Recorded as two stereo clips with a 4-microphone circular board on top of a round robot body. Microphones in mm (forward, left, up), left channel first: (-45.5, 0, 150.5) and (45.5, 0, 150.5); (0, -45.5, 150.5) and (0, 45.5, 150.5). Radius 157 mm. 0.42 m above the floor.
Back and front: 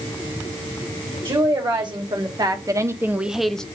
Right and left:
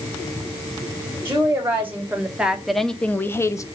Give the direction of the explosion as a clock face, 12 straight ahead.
No explosion in this recording.